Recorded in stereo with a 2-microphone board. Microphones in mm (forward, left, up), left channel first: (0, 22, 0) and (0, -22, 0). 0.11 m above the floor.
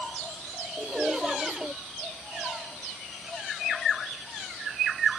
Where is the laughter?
15° right (ahead or behind).